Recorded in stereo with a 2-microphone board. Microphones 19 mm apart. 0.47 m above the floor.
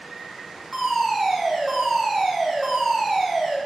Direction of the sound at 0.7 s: Centre (ahead or behind).